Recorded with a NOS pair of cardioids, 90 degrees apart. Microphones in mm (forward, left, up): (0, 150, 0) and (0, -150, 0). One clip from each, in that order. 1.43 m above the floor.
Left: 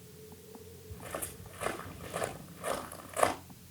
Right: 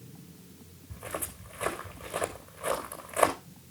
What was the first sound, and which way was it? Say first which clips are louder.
Footsteps: right 4 dB; 35° right.